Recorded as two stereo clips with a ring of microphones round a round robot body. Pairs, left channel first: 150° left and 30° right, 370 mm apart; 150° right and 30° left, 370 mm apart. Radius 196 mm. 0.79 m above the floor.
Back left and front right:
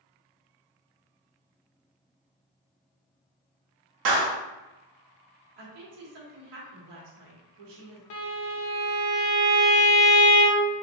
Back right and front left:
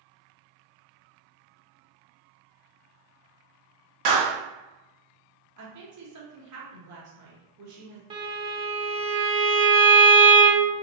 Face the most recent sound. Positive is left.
turn(degrees=105)